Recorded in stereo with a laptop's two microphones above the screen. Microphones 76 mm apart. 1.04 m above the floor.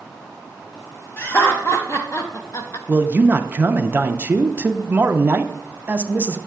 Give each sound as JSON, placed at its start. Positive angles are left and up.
{"t": 1.2, "sound": "laughter", "side_deg": 35, "distance_m": 1.1}
{"t": 2.9, "sound": "a man speaking", "side_deg": -25, "distance_m": 0.5}